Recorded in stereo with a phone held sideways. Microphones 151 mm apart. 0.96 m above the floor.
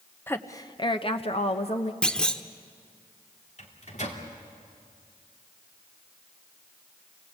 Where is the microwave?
50° left (ahead or behind), 2.5 m.